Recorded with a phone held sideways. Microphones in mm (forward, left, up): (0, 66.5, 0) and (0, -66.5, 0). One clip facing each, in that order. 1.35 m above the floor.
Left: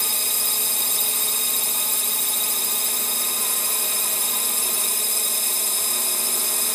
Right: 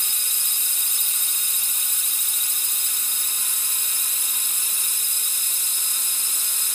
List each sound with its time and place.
0.0 s a drone: 65° left (ahead or behind)